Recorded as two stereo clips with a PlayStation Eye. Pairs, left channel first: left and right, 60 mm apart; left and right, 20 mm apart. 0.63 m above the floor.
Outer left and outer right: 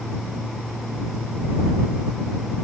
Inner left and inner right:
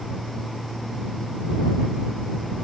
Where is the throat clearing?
No throat clearing in this recording.